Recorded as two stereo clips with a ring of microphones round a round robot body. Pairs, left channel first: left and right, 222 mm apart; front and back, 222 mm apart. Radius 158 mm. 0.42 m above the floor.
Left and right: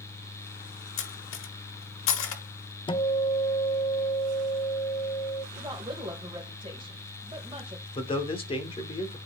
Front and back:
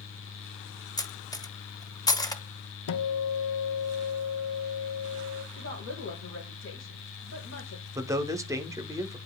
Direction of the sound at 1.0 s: 75° left.